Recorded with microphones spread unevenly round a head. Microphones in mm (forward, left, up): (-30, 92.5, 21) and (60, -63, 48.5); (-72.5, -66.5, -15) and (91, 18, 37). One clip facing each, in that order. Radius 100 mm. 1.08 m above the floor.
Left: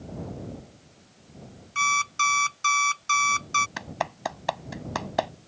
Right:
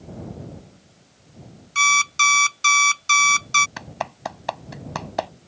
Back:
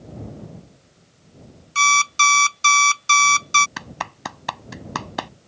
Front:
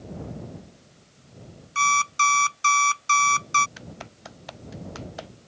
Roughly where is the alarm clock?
Right.